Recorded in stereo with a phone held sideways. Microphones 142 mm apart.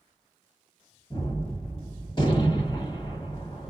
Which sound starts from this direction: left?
A gunshot, at 1.1 s.